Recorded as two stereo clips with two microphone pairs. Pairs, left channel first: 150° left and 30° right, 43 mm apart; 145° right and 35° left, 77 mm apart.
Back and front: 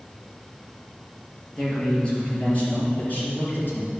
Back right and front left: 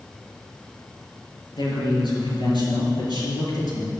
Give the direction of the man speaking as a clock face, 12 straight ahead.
5 o'clock.